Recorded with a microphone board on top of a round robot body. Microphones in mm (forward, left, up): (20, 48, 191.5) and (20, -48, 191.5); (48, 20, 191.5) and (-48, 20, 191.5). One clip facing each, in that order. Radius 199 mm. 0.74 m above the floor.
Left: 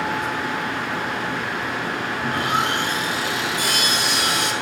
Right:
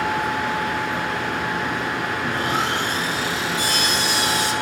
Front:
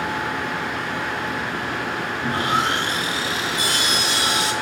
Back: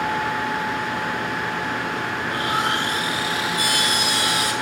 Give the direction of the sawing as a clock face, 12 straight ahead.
10 o'clock.